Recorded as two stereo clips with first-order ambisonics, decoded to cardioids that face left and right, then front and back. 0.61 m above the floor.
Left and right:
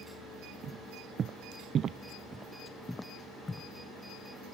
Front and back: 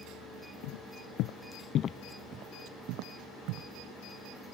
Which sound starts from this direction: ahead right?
Footsteps, at 0.6 s.